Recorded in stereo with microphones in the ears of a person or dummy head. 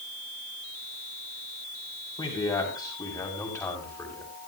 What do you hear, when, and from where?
2.2 s a man speaking: 25° left (ahead or behind), 6 m; by 4.3 s 15° left (ahead or behind), 6 m